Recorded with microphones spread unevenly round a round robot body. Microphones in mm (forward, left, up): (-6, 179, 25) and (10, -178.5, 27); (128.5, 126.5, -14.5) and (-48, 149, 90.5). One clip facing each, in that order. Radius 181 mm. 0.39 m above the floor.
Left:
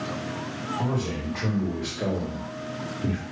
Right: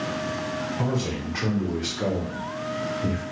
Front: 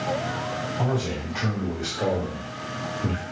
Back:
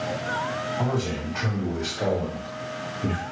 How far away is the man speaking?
About 1.7 m.